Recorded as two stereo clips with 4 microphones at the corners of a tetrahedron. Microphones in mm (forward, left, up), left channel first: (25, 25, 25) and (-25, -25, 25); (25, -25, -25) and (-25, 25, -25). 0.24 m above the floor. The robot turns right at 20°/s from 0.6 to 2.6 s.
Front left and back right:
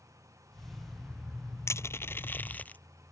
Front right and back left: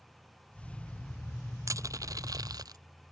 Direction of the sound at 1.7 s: 95° left.